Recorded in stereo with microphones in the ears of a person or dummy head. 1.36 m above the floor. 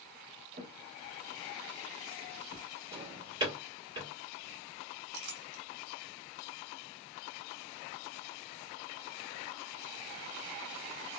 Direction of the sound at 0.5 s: 25° right (ahead or behind).